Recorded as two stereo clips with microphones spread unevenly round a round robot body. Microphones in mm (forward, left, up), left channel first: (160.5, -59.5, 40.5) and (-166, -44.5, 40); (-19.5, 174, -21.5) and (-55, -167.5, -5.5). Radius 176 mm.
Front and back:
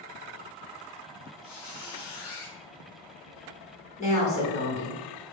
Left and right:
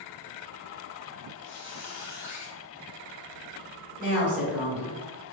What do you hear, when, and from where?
1.4 s a squeak: 25° left, 1.4 m
4.0 s a woman speaking: 5° right, 1.3 m